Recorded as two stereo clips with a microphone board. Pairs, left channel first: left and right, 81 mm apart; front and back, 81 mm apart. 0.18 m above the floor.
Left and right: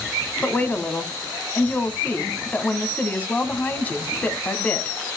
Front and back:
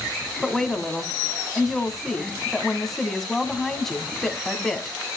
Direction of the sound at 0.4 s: 80° left.